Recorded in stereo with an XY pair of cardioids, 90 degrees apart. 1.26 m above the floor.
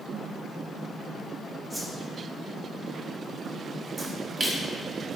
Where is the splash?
20° right, 0.8 m.